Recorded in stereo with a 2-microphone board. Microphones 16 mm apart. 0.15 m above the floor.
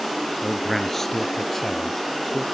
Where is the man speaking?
25° left (ahead or behind); by 2.5 s 10° left (ahead or behind).